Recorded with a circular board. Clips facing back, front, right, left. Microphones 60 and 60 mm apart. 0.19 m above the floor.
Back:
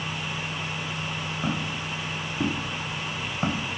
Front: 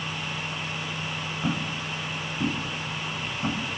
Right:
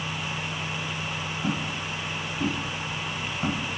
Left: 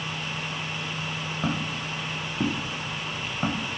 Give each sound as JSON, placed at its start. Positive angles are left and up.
{"t": 1.4, "sound": "footsteps", "azimuth_deg": 100, "distance_m": 2.5}